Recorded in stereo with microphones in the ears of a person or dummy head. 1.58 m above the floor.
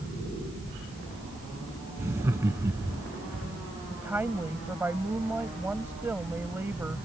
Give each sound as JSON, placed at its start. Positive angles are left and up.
{"t": 2.0, "sound": "laughter", "side_deg": -10}
{"t": 3.9, "sound": "a woman speaking", "side_deg": -10}